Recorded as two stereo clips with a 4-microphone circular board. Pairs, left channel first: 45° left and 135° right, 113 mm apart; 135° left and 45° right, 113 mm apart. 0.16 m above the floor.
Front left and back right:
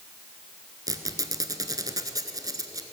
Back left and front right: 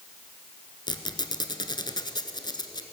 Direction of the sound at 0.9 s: 175° left.